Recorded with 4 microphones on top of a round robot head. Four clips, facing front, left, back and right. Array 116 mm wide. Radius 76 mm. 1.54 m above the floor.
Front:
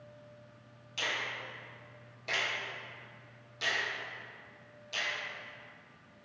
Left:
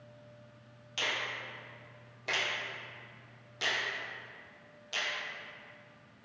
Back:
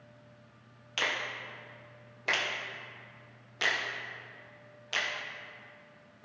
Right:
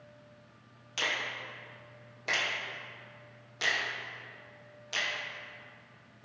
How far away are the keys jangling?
No keys jangling in this recording.